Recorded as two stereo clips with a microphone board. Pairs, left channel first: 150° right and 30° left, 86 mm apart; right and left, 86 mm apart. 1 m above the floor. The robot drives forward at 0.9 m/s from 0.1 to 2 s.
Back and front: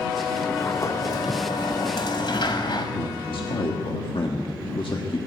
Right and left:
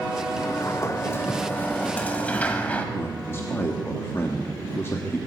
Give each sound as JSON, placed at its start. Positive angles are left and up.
{"t": 0.4, "sound": "a sliding door", "azimuth_deg": -80, "distance_m": 0.8}
{"t": 3.0, "sound": "a man speaking", "azimuth_deg": -150, "distance_m": 1.6}